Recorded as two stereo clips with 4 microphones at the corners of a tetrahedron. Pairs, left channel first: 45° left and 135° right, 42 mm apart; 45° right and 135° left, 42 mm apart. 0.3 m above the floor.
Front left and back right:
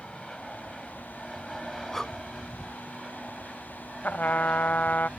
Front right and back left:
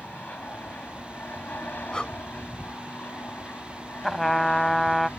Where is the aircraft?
35° right; by 5.2 s 65° right.